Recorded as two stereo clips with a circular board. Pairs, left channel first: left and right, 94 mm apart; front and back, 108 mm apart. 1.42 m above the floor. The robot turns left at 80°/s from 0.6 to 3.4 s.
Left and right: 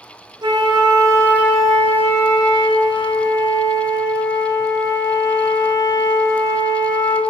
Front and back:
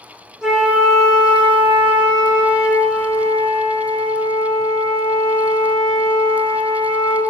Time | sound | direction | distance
0.4 | a flute | 100° right | 0.7 m